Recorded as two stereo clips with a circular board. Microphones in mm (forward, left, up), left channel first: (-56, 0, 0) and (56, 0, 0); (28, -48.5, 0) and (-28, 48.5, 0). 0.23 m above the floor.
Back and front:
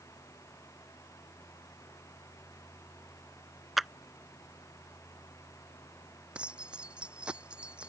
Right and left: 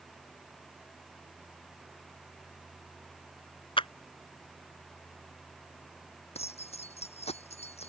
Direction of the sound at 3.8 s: 90° right.